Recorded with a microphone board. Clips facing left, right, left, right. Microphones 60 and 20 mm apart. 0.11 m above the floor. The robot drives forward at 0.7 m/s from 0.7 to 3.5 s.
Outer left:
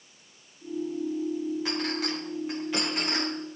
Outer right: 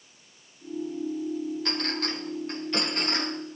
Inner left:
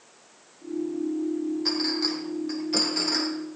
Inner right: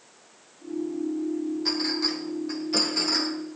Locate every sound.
1.6 s a clink: 10° left (ahead or behind), 3.5 m; by 3.3 s 5° left (ahead or behind), 4.5 m